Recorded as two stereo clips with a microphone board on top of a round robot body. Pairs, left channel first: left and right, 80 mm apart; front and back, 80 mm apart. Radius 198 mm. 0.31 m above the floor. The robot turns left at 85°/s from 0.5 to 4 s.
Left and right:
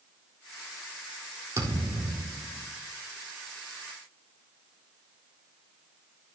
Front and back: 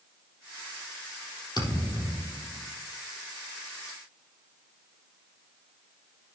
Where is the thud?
40° right, 4 m; by 2.7 s 135° right, 4 m.